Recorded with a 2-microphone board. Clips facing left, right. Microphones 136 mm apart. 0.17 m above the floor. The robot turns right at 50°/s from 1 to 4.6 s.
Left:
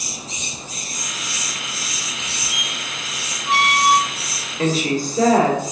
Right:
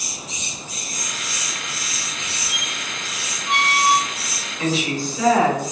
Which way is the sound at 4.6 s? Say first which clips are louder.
Left 3 dB; 45° left (ahead or behind).